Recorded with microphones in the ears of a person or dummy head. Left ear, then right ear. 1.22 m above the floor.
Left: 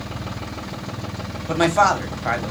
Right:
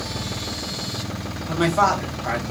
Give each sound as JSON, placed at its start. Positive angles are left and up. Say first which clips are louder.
{"t": 1.5, "sound": "a man speaking", "louder": "left 2 dB", "side_deg": 70, "distance_m": 0.8}